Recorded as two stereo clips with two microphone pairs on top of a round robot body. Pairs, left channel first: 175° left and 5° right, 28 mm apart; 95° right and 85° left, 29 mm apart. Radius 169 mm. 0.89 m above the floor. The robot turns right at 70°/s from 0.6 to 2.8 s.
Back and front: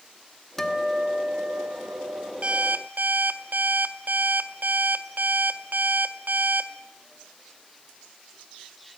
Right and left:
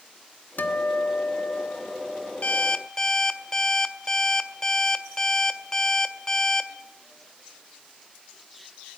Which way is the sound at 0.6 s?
105° right.